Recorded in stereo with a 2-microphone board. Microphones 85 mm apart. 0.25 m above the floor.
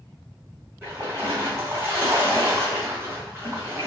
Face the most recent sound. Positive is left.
turn(degrees=-25)  # may be behind; listen again after turning